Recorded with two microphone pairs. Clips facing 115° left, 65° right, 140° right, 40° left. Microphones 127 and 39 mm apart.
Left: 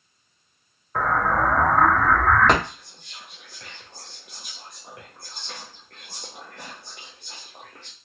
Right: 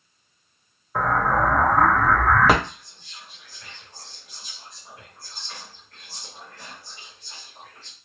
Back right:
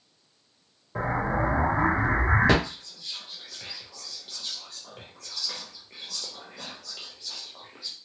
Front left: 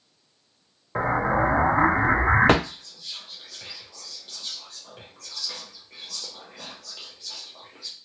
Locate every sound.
0.9 s an explosion: 15° left, 0.6 m
2.6 s whispering: 135° left, 0.9 m